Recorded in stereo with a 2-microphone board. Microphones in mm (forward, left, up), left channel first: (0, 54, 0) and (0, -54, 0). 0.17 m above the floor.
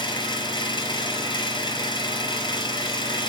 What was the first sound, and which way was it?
An engine running, 45° left (ahead or behind).